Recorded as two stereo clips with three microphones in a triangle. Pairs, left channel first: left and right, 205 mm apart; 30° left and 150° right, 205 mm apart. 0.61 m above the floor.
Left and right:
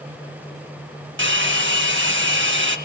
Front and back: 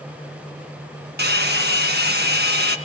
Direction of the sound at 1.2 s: 115° right.